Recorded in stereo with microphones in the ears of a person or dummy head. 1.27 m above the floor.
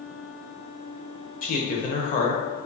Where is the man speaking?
45° left (ahead or behind), 0.6 m.